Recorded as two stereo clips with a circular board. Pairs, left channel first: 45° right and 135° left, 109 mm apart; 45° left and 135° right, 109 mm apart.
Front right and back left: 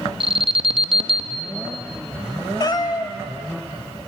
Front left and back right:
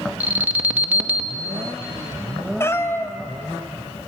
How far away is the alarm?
About 1.1 m.